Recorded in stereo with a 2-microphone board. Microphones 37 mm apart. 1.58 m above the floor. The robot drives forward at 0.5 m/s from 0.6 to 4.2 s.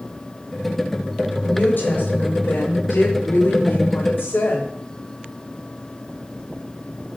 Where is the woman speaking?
55° left (ahead or behind), 6 m; by 4.7 s 65° left (ahead or behind), 5.5 m.